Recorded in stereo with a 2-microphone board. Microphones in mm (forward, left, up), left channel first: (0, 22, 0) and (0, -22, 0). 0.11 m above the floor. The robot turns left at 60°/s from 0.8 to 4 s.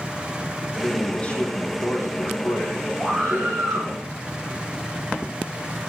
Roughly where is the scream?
Ahead.